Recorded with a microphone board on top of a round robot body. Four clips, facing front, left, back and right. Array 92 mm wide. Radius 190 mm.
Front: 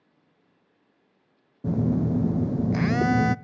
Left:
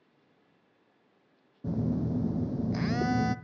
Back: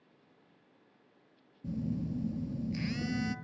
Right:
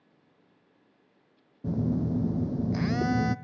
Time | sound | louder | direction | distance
1.6 | a phone buzzing | right 2 dB, front 12 dB | straight ahead | 0.6 m